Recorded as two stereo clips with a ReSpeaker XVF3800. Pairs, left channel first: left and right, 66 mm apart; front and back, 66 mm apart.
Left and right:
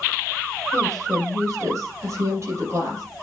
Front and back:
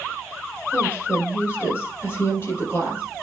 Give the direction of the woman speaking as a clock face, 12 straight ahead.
2 o'clock.